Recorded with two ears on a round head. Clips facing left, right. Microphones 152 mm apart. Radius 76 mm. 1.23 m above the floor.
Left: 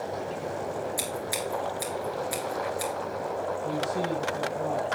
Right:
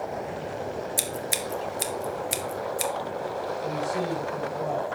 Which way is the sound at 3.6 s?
25° right (ahead or behind).